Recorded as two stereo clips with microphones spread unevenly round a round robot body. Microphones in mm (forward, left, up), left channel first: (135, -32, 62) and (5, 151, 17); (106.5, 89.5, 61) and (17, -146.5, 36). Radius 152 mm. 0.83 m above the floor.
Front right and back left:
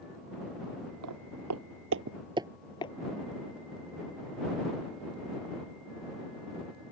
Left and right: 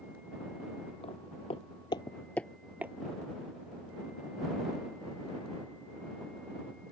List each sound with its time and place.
1.0 s footsteps: 140° left; by 2.9 s 25° right